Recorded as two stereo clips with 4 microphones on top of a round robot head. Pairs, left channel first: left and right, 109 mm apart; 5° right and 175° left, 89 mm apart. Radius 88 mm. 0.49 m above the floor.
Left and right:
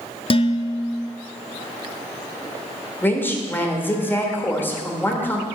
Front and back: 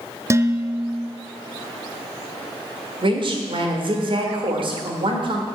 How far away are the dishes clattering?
About 0.6 m.